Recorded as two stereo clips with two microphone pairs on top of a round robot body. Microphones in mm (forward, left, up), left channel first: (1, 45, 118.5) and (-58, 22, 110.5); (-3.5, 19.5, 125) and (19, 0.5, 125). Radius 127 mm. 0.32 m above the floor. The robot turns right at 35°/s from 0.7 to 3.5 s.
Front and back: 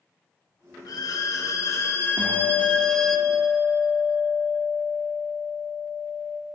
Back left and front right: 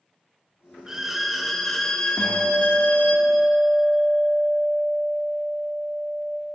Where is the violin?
35° left, 0.7 m; by 3.2 s 115° left, 0.7 m.